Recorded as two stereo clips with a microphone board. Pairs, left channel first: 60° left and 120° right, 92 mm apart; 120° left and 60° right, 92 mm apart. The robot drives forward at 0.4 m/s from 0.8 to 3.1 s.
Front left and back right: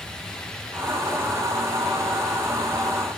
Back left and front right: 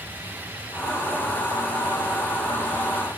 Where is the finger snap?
I don't hear a finger snap.